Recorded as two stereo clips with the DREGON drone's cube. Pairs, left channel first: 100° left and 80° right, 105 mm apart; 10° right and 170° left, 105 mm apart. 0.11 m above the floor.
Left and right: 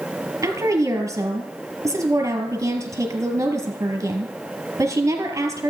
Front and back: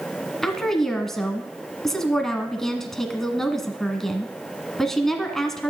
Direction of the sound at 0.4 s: 95° right.